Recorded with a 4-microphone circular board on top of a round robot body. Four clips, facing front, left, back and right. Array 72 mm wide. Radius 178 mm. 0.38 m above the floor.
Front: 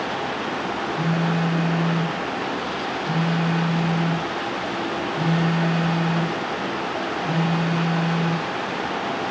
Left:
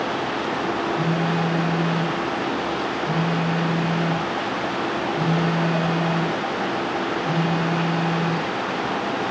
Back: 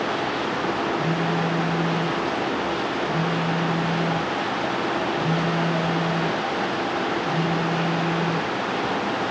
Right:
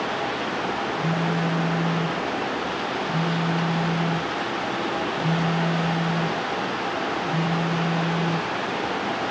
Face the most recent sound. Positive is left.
turn(degrees=35)